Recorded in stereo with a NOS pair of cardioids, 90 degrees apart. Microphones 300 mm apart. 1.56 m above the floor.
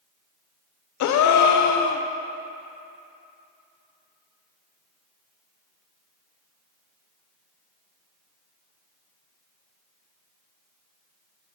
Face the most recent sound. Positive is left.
turn(degrees=70)